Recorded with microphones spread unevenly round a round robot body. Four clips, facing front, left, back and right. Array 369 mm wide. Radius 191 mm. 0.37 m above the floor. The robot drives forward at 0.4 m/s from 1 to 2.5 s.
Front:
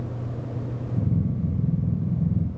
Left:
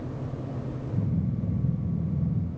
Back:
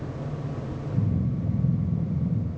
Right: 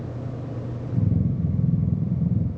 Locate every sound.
Only background noise.